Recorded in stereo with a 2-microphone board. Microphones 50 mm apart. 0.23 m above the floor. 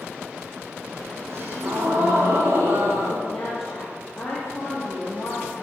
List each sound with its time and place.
1.3 s a gasp: 55° right (ahead or behind), 8 m
3.3 s a woman speaking: 10° left (ahead or behind), 6 m